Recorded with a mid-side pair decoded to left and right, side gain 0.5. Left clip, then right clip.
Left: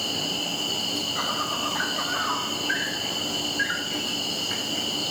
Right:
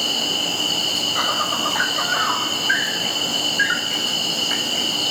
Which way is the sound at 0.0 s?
40° right.